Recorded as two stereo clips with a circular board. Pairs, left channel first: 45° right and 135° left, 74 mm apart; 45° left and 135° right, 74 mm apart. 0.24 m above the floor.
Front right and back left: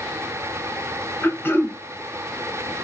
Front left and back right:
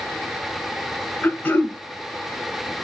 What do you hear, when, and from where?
1.2 s throat clearing: straight ahead, 0.7 m